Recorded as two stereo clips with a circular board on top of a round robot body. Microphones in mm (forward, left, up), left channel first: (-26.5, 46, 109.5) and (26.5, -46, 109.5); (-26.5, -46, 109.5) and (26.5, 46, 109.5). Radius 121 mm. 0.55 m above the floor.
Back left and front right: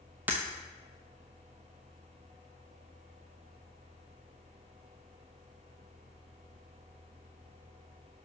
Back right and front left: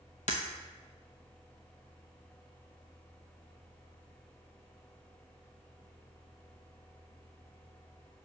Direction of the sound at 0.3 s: 135° right.